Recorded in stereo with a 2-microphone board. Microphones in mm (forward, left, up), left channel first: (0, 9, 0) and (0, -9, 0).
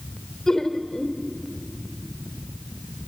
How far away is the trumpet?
No trumpet in this recording.